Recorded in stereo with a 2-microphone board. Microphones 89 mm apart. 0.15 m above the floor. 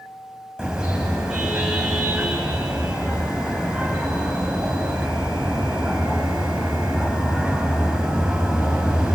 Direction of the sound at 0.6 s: 10° right (ahead or behind).